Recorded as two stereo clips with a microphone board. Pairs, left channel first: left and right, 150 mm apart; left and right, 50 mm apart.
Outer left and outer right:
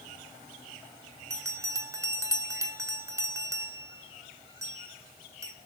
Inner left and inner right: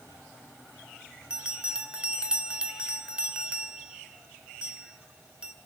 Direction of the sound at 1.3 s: 20° right (ahead or behind).